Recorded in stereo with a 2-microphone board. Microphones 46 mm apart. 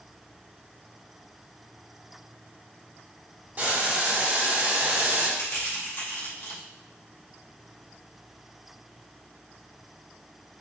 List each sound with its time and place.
3.6 s boiling: 40° right (ahead or behind), 2.5 m
5.4 s crushing: 50° left (ahead or behind), 1.9 m